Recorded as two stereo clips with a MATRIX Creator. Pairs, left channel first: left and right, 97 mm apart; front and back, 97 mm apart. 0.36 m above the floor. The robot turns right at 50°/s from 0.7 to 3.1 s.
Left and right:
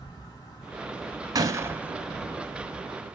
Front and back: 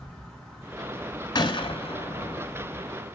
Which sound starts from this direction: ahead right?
A gunshot, at 1.4 s.